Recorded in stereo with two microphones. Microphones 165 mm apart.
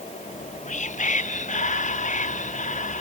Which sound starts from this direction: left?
Whispering, at 0.3 s.